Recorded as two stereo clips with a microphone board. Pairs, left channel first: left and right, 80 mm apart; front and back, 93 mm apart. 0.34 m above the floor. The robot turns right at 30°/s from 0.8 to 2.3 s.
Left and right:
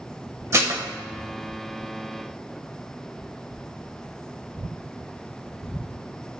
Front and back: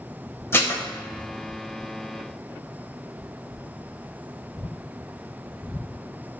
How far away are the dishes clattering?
About 0.7 m.